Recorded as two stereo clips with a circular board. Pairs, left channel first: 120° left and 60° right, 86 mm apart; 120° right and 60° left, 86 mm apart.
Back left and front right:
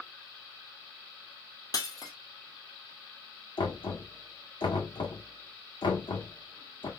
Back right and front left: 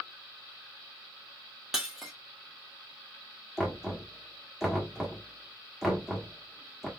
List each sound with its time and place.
1.7 s breaking glass: 145° left, 1.5 m
3.6 s knocking: 145° left, 1.4 m